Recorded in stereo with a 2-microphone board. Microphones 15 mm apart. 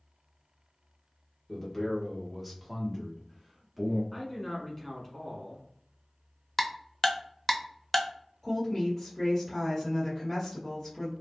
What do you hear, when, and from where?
1.5 s a man speaking: 15° left (ahead or behind), 1.2 m; by 4.0 s 15° right (ahead or behind), 1.9 m
4.1 s a man speaking: 15° left (ahead or behind), 1.3 m
6.6 s ticking: 10° left (ahead or behind), 0.6 m
8.4 s a woman speaking: 20° left (ahead or behind), 1.2 m